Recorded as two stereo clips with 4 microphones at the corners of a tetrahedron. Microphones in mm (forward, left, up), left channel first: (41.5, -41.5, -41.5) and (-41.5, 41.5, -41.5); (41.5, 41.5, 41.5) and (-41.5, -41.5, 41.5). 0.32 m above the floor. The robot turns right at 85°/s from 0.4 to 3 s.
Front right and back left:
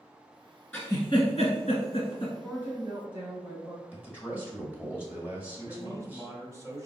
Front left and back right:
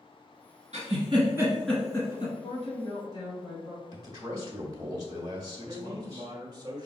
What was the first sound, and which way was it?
A giggle, 120° right.